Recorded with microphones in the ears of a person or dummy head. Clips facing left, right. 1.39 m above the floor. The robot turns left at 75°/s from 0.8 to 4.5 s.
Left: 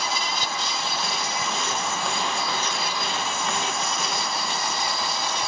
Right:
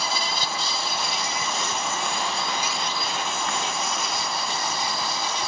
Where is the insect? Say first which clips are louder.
Even; 30° right; by 5.5 s 50° left.